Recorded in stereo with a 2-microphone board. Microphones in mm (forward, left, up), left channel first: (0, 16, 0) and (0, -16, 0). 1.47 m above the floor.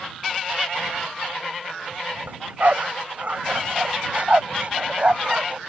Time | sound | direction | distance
2.3 | a dog barking | 55° right (ahead or behind) | ?